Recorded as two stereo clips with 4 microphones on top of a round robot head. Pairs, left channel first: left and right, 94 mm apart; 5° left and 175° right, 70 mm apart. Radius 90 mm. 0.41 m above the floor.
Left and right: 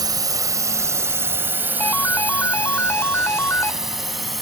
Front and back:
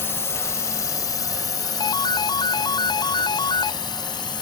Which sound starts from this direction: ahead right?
A drone, at 0.0 s.